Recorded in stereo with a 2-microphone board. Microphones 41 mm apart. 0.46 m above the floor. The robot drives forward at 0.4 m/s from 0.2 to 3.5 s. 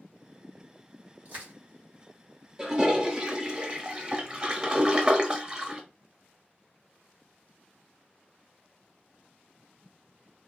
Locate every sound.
1.2 s crushing: 50° right (ahead or behind), 2.0 m
2.6 s a toilet flushing: 20° right (ahead or behind), 0.8 m; by 5.8 s 25° right (ahead or behind), 0.6 m